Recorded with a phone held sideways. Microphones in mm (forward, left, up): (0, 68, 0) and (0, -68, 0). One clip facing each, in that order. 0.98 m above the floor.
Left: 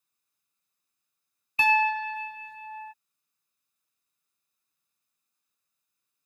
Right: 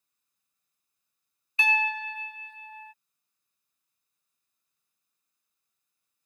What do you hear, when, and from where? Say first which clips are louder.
1.6 s a piano: left 6 dB; 40° left (ahead or behind)